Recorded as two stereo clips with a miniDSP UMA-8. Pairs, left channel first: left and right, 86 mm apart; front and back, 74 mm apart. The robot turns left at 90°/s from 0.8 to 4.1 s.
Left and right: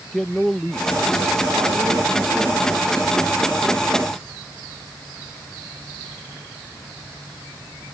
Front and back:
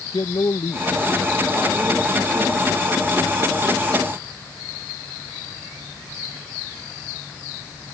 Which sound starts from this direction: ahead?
A man speaking, at 0.1 s.